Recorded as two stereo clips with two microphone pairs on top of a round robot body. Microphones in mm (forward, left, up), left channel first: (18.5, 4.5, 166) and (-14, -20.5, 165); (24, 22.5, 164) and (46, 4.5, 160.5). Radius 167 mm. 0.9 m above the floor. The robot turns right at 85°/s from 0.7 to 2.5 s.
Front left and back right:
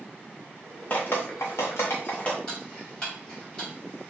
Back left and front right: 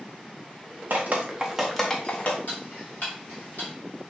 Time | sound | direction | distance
0.9 | dripping | 20° right | 0.6 m
2.5 | ticking | 110° left | 1.4 m